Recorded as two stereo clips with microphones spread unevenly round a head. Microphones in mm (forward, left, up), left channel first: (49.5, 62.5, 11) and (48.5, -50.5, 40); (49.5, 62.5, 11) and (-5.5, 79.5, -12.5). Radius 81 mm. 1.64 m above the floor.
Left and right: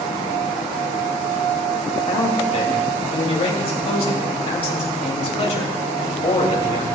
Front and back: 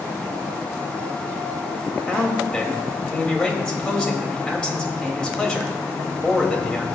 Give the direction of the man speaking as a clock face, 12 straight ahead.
10 o'clock.